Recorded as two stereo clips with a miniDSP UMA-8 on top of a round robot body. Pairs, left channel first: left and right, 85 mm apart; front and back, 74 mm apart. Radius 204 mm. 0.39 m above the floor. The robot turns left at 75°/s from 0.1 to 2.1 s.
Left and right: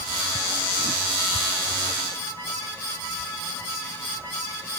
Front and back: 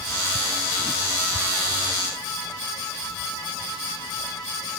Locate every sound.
Only background noise.